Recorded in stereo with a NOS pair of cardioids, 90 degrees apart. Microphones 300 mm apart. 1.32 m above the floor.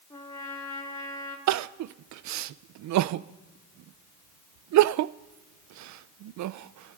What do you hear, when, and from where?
0.1 s a trumpet: 10° left, 4.5 m
1.5 s crying: 65° right, 0.6 m